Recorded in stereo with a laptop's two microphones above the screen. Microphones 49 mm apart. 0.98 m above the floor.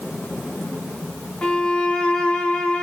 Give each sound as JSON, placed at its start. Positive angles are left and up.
{"t": 1.4, "sound": "a violin", "side_deg": 20, "distance_m": 0.7}